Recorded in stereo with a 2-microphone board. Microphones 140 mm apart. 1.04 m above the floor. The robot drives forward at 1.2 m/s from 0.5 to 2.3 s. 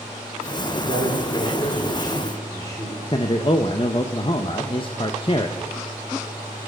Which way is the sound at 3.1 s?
35° left (ahead or behind).